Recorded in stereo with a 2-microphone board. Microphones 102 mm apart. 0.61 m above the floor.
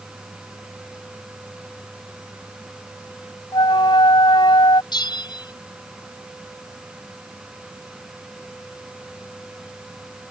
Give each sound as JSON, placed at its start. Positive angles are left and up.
{"t": 3.5, "sound": "a flute", "side_deg": 55}
{"t": 4.9, "sound": "a bell", "side_deg": 50}